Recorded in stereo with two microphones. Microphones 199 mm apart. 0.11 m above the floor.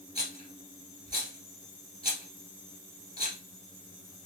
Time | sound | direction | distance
0.1 | a rattle | 30° left (ahead or behind) | 2 m